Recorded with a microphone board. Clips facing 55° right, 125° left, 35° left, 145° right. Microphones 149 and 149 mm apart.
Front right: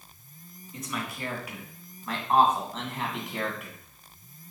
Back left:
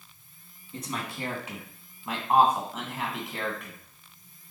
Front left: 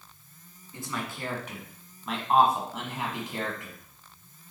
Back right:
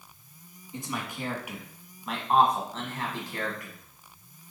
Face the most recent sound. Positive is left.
turn(degrees=20)